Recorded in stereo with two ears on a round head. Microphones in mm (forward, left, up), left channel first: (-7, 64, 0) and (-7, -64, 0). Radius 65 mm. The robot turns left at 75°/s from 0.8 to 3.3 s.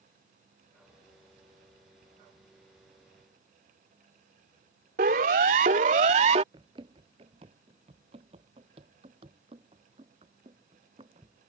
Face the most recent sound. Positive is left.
turn(degrees=-35)  # may be behind; listen again after turning